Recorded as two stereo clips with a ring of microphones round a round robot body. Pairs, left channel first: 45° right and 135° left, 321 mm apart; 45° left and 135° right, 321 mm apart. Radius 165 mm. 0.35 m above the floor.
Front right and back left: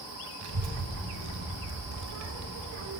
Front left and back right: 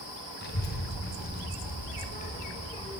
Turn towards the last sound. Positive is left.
turn(degrees=115)